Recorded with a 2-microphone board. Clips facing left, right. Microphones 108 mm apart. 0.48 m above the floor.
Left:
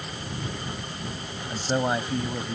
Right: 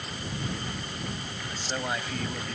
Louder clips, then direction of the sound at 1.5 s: Left 8 dB; 40° left (ahead or behind).